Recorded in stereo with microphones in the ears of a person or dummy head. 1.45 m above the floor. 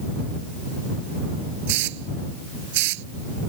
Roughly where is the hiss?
Right.